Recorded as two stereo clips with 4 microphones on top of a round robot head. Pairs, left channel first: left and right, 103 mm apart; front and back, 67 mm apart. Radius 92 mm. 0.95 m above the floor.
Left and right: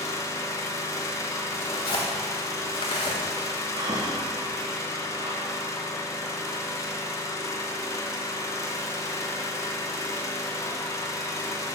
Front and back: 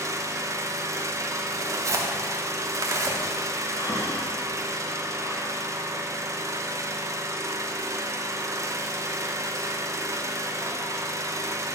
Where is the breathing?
45° right, 1.1 m.